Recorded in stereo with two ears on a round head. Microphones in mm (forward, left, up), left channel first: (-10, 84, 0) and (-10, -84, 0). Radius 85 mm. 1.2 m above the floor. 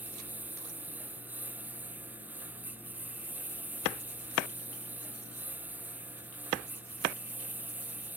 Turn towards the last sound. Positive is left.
turn(degrees=-10)  # may be behind; listen again after turning